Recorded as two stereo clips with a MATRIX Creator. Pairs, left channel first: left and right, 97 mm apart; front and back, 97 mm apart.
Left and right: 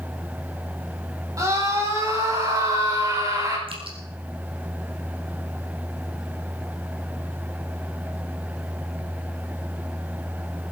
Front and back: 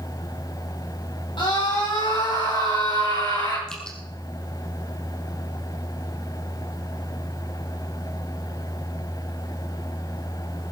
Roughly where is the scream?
Ahead right.